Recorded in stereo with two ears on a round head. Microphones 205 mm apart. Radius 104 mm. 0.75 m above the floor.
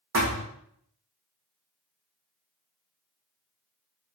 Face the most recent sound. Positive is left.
turn(degrees=-65)  # may be behind; listen again after turning